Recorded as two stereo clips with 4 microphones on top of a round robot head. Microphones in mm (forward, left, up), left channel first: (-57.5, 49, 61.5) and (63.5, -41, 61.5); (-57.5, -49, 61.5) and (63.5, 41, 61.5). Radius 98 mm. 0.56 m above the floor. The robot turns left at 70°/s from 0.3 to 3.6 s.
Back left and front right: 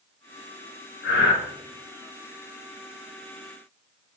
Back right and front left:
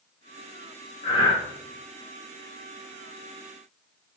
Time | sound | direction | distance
1.0 | breathing | 165° left | 0.6 m